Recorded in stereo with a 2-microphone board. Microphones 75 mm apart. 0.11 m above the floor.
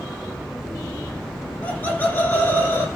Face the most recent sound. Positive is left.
turn(degrees=30)  # may be behind; listen again after turning